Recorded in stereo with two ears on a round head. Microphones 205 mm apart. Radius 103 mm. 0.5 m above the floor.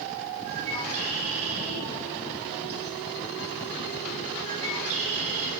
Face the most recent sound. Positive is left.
turn(degrees=-65)  # may be behind; listen again after turning